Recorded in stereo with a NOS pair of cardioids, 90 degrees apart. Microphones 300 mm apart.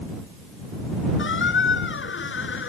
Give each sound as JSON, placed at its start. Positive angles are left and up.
{"t": 1.2, "sound": "a squeak", "azimuth_deg": 40}